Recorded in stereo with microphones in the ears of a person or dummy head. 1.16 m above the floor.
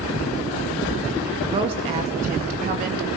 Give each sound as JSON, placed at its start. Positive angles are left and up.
{"t": 1.4, "sound": "a woman speaking", "side_deg": -25, "distance_m": 1.9}